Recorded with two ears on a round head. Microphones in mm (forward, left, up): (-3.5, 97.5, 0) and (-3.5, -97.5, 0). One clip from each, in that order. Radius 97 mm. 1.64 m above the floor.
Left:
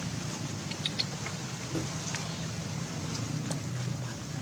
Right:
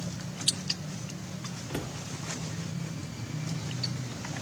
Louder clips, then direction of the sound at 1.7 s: Left 1 dB; 65° right (ahead or behind).